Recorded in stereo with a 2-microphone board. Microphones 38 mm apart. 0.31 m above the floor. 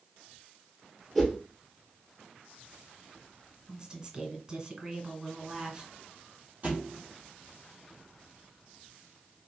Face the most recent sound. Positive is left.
turn(degrees=-40)  # may be behind; listen again after turning